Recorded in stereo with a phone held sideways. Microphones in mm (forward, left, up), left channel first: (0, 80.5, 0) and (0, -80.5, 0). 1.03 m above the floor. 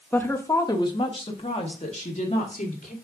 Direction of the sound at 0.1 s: 10° left (ahead or behind).